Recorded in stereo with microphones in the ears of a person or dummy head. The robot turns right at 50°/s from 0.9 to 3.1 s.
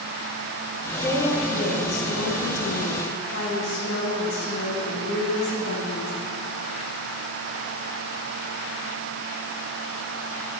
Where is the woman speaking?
10° left, 2 m; by 6.1 s 115° left, 2 m.